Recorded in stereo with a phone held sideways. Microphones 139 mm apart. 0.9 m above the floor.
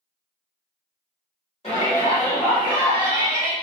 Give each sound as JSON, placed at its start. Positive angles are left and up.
{"t": 1.6, "sound": "a shout", "side_deg": 50, "distance_m": 1.4}